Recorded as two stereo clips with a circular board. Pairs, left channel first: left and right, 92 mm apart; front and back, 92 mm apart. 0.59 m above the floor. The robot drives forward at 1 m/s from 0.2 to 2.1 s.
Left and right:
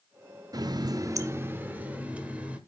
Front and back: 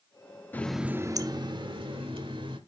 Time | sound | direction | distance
0.5 | a running tap | 65° right | 0.6 m